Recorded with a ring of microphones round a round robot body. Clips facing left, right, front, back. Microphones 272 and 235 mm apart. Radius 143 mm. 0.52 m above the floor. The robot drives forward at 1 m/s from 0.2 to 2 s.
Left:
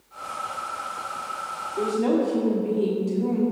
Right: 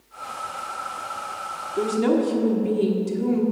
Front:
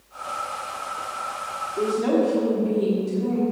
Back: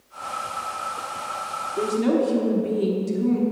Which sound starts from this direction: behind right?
A woman speaking, at 1.8 s.